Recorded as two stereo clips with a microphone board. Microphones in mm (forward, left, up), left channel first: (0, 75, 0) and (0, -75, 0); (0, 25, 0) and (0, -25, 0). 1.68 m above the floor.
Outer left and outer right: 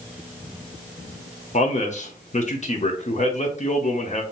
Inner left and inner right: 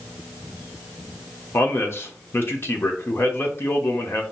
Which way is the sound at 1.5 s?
50° left (ahead or behind).